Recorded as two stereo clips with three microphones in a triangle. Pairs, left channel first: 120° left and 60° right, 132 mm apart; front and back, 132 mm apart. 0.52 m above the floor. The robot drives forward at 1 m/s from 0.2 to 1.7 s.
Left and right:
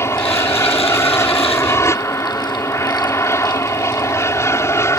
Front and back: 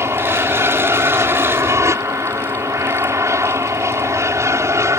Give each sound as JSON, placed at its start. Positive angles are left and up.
{"t": 0.0, "sound": "an aircraft", "azimuth_deg": 150}